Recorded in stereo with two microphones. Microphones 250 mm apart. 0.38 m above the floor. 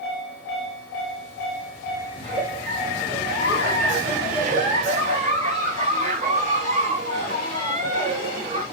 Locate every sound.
2.2 s a giggle: 30° right (ahead or behind), 1.1 m